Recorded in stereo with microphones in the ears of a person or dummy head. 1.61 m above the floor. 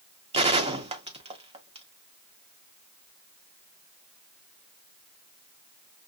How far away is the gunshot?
About 0.6 m.